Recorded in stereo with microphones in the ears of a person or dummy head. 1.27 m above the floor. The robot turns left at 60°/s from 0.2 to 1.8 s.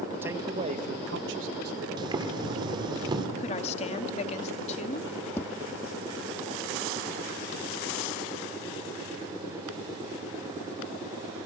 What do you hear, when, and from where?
0.2 s a man speaking: 15° right, 1.4 m; by 1.9 s 110° right, 1.4 m
2.0 s boiling: 30° right (ahead or behind), 2.5 m
3.4 s a woman speaking: 35° left (ahead or behind), 1.9 m
5.4 s tapping: 10° left (ahead or behind), 0.7 m